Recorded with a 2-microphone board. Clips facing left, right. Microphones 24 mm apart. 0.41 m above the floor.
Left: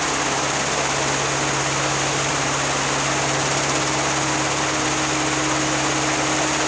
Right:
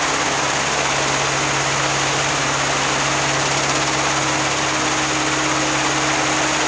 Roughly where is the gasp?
I don't hear a gasp.